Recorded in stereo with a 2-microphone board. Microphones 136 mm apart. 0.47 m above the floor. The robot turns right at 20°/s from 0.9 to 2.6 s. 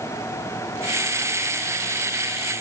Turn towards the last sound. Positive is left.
No sound to turn to.